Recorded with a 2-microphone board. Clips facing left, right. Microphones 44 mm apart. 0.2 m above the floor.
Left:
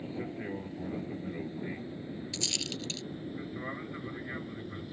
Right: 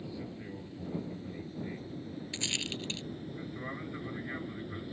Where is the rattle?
25° right (ahead or behind).